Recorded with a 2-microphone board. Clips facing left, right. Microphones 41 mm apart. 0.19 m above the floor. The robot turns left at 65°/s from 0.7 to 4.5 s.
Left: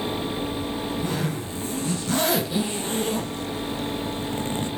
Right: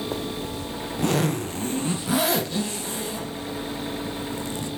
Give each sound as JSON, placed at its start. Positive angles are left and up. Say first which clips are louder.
{"t": 0.1, "sound": "a zipper", "louder": "left 2 dB", "side_deg": -75, "distance_m": 1.2}